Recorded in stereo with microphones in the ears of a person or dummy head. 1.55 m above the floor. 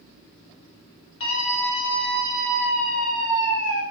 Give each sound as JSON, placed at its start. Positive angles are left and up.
{"t": 1.2, "sound": "a scream", "side_deg": 70, "distance_m": 4.0}